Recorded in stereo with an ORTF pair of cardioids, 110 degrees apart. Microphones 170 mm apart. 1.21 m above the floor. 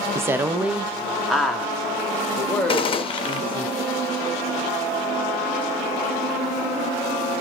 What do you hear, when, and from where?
0.1 s a woman speaking: 15° right, 0.6 m; by 3.7 s 10° left, 2.5 m
2.7 s a gunshot: 35° left, 1.0 m